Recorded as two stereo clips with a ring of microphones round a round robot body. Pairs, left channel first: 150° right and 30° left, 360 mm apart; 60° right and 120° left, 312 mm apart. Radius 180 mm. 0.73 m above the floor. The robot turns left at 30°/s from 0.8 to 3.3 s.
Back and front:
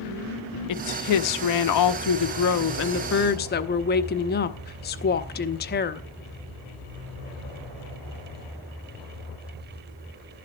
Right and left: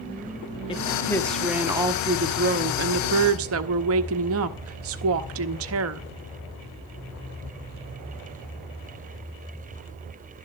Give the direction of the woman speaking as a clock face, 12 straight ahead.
4 o'clock.